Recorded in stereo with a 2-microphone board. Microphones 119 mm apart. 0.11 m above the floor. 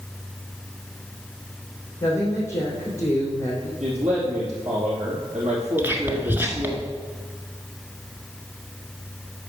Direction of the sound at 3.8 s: 70° right (ahead or behind).